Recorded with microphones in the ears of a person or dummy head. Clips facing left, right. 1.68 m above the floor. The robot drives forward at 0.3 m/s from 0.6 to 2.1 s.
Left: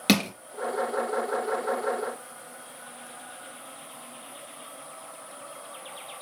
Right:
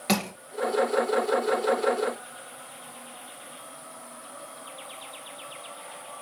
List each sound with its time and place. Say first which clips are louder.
0.1 s crushing: left 4 dB; 45° left (ahead or behind), 3 m